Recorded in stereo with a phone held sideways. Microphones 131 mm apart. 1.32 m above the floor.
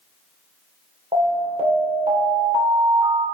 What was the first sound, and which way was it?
An alarm, 50° right (ahead or behind).